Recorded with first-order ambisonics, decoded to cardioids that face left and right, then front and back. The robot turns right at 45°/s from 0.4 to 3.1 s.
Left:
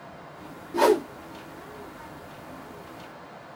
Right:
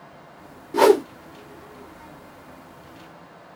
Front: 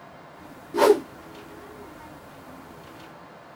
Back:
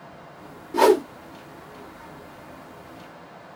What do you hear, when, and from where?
0.7 s a whoosh: 110° right, 0.6 m; by 1.1 s 95° right, 0.6 m